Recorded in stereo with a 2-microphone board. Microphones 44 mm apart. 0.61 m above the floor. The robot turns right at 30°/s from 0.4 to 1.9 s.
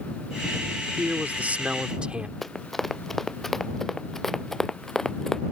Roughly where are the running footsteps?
Centre.